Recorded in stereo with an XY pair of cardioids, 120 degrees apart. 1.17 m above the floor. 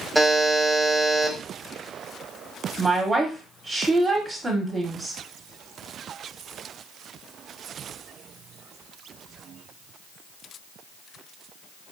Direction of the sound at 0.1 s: Straight ahead.